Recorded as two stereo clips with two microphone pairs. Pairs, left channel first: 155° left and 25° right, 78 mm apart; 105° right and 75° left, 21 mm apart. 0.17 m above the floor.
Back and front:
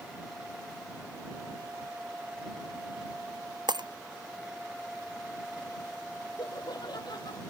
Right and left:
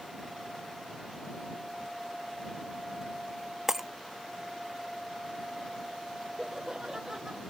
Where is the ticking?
No ticking in this recording.